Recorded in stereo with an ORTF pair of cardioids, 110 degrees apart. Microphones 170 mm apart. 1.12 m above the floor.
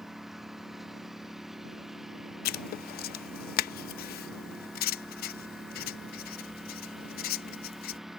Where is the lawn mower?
Straight ahead.